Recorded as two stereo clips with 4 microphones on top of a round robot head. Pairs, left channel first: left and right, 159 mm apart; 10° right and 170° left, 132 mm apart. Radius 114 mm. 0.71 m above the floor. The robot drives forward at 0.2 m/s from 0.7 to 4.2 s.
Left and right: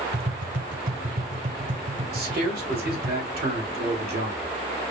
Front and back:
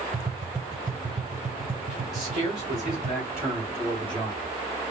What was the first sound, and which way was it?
Tapping, 125° right.